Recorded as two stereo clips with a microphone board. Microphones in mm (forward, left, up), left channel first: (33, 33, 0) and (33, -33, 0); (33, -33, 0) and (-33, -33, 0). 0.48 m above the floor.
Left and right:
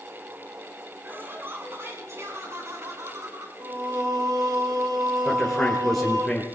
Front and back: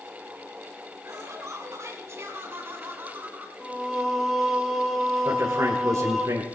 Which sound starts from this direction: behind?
A man speaking, at 5.2 s.